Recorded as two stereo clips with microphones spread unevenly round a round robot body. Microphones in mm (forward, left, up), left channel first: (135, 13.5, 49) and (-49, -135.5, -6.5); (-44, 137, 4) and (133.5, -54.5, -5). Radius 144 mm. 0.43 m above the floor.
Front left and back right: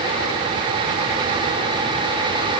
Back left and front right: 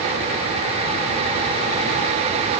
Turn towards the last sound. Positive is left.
No sound to turn to.